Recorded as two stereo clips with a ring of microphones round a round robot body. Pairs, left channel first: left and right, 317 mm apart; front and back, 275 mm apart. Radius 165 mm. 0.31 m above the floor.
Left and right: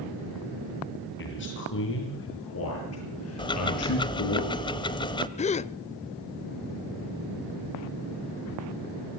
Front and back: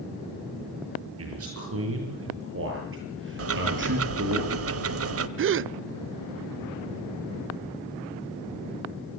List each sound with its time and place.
1.2 s a man speaking: 145° left, 8 m; by 4.4 s 130° left, 9 m
3.4 s ticking: 165° left, 1.3 m
5.4 s a gasp: 155° left, 0.5 m